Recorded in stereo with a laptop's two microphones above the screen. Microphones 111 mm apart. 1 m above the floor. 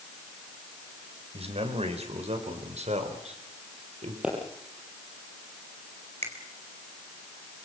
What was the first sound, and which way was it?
A man speaking, 60° right (ahead or behind).